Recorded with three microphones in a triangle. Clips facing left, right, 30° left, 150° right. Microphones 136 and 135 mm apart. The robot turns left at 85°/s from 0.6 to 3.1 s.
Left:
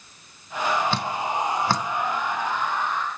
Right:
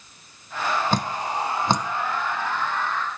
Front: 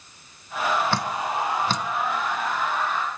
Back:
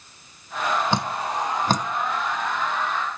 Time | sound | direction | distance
0.9 | dripping | 85° right | 0.5 m